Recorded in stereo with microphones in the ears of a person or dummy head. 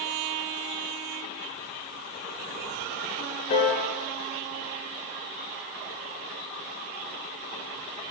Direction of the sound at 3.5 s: 35° left (ahead or behind).